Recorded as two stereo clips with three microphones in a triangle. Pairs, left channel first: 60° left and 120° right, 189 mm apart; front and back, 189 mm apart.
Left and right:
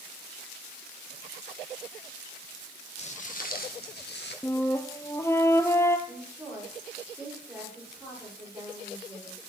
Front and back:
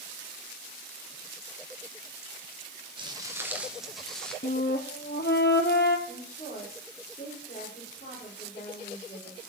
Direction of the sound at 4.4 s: 15° right.